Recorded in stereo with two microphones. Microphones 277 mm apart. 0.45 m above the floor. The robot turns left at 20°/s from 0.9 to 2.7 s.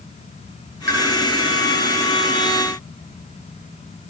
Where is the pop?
35° right (ahead or behind), 7.5 m.